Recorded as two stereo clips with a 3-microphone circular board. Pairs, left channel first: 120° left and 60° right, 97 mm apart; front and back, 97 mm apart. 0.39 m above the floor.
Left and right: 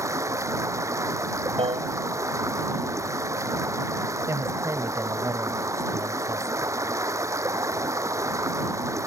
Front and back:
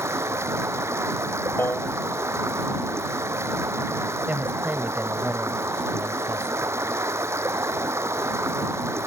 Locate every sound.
0.0 s running water: 120° right
1.6 s a piano: 70° right
4.3 s a woman speaking: 110° right